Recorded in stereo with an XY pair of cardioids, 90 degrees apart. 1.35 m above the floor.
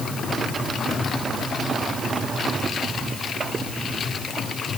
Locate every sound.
Only background noise.